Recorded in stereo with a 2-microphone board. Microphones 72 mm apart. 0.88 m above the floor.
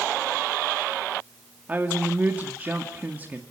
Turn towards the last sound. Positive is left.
turn(degrees=-25)  # may be behind; listen again after turning